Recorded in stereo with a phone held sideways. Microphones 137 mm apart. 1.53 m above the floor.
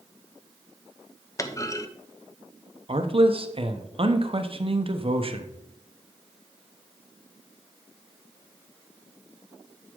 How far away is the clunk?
About 0.7 m.